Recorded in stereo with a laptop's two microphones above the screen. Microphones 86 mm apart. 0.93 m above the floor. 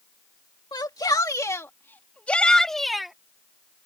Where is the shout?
55° left (ahead or behind); by 3.1 s 5° right (ahead or behind).